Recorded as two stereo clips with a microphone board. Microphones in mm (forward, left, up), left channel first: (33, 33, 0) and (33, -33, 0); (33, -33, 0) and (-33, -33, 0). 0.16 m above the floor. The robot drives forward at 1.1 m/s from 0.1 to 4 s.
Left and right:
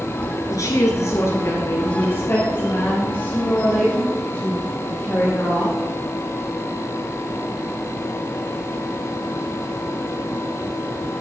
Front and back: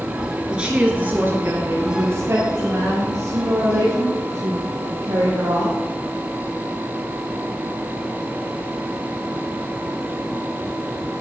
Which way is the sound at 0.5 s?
105° left.